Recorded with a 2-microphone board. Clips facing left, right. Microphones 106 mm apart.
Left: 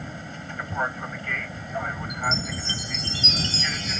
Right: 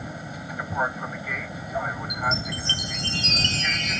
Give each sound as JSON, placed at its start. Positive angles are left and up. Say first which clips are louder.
{"t": 0.0, "sound": "an aircraft", "louder": "right 1 dB", "side_deg": -10}
{"t": 2.1, "sound": "a chime", "louder": "even", "side_deg": -65}